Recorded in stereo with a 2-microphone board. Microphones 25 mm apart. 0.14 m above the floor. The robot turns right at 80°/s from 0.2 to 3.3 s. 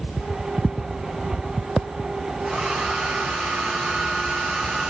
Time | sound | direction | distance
2.4 | a hair dryer | 140° right | 3.5 m